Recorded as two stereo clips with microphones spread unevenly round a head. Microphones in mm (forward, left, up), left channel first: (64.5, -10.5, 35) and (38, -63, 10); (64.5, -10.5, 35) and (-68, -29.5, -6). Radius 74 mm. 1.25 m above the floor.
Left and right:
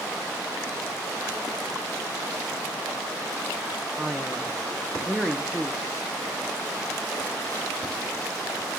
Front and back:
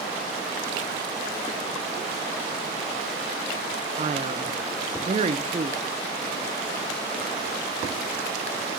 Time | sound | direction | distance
4.0 | a man speaking | 165° left | 1.3 m